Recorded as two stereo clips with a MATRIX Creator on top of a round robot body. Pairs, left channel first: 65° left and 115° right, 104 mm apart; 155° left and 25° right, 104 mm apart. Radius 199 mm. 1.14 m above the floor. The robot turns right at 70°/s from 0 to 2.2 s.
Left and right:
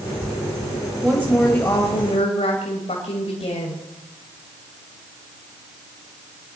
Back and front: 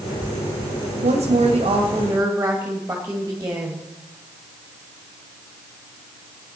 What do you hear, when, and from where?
1.0 s a woman speaking: 30° right, 2.5 m; by 3.8 s 50° left, 2.5 m